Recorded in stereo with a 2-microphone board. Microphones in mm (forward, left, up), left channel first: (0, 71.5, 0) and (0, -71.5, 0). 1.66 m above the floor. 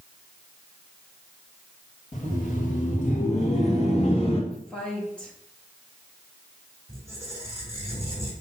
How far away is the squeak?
About 4 m.